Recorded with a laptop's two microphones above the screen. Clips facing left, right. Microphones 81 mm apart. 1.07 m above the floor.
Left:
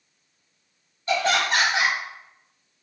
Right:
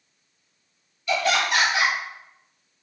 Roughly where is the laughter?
Left.